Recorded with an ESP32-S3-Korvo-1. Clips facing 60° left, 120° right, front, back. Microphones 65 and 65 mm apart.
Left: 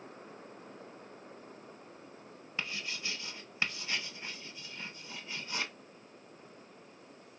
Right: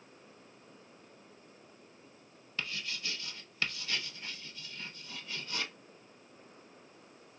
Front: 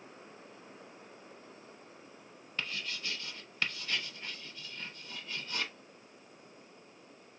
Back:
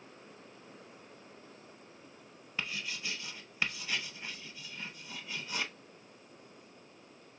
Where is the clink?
No clink in this recording.